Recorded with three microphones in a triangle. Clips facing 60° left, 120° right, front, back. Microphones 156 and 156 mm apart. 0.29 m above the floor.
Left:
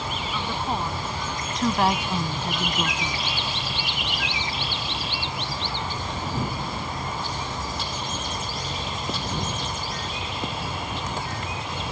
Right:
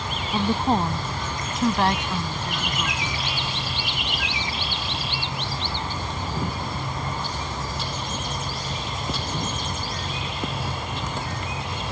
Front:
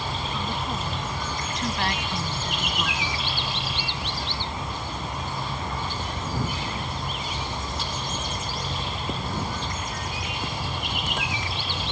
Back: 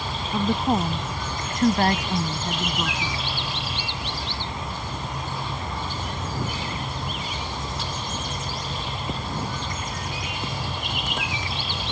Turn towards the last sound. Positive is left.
turn(degrees=105)